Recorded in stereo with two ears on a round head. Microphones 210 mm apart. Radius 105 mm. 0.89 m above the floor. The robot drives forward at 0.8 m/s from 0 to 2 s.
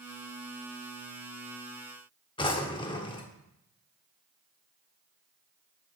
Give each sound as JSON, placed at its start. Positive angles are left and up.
{"t": 2.4, "sound": "a drawer", "side_deg": 20, "distance_m": 0.8}